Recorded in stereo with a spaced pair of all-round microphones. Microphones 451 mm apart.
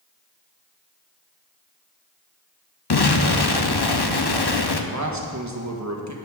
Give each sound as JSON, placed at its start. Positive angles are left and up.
{"t": 2.9, "sound": "an explosion", "side_deg": 60, "distance_m": 0.8}
{"t": 4.9, "sound": "a man speaking", "side_deg": -40, "distance_m": 1.5}